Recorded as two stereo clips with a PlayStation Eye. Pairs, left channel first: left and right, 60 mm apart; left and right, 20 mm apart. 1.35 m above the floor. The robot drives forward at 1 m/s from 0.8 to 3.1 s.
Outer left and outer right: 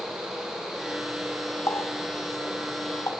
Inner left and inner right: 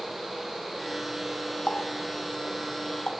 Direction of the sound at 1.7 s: 70° left (ahead or behind).